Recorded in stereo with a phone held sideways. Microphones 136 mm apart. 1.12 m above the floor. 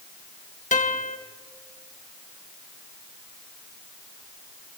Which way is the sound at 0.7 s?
65° left (ahead or behind).